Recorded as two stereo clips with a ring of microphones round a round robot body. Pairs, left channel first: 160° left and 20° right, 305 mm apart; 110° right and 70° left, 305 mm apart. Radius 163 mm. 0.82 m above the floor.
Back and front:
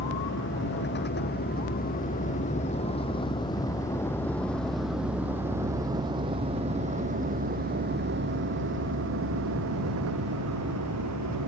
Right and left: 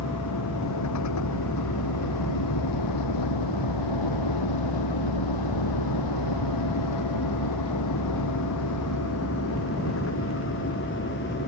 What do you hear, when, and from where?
0.0 s a vehicle: 150° right; by 11.5 s 55° right